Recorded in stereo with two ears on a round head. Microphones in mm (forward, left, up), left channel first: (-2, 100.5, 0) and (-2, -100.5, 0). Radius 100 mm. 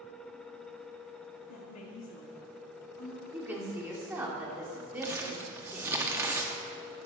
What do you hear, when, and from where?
1.4 s a woman speaking: 75° left (ahead or behind), 1.5 m; by 3.2 s 60° left (ahead or behind), 2.5 m
3.3 s a woman speaking: 10° right (ahead or behind), 2 m
5.0 s crumpling: 10° right (ahead or behind), 1.0 m